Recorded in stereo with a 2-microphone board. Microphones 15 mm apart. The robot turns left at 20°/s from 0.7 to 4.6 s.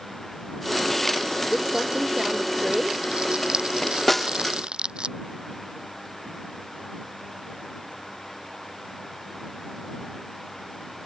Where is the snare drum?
15° left (ahead or behind); by 4.3 s 10° left (ahead or behind).